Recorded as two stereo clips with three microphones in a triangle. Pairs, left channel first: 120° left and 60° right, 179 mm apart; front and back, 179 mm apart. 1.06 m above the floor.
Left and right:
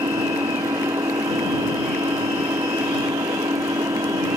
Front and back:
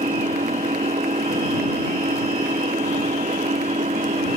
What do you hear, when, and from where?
0.0 s an engine running: 130° right